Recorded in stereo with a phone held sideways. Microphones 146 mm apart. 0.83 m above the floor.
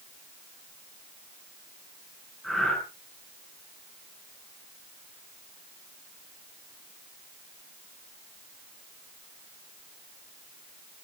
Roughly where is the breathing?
Centre.